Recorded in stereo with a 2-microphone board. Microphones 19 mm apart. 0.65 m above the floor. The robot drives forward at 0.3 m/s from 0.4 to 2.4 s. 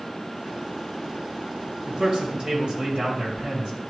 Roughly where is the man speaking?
Right.